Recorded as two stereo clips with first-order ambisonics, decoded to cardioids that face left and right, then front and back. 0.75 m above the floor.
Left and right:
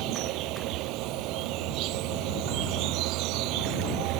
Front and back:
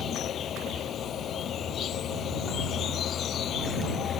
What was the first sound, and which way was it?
An insect, 60° right.